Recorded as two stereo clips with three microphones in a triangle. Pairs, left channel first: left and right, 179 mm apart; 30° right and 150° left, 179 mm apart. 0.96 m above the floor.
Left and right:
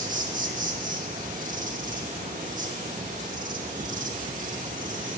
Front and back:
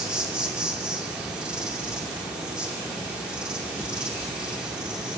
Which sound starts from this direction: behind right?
An insect, at 0.0 s.